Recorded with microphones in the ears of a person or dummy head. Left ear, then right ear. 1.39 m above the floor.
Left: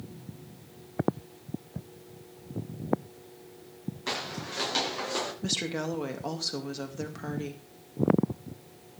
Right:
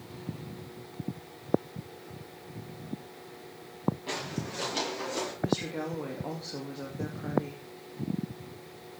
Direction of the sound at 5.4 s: 80° left.